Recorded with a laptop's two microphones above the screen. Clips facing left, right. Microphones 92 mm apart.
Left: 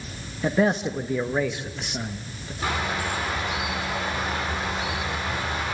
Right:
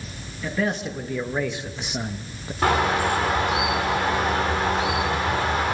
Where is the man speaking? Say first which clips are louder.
Left 4 dB; 35° left (ahead or behind), 1.3 m; by 2.5 s 30° right (ahead or behind), 1.2 m.